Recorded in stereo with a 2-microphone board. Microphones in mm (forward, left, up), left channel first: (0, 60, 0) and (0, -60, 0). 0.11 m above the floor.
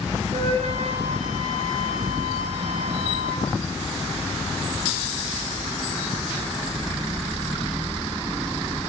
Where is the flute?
60° right (ahead or behind), 2 m.